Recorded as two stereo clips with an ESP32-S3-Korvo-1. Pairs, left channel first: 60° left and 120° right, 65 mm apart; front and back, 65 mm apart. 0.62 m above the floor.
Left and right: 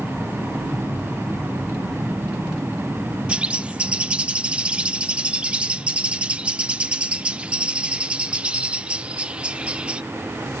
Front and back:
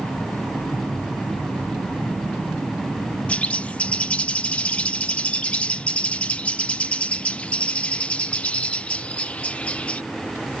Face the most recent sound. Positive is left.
turn(degrees=-60)